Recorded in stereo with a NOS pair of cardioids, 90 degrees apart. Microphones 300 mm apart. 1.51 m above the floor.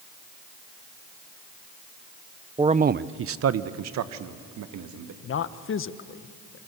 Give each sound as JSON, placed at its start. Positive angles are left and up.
{"t": 2.6, "sound": "a man speaking", "azimuth_deg": -15, "distance_m": 0.7}
{"t": 5.2, "sound": "a man speaking", "azimuth_deg": 45, "distance_m": 1.2}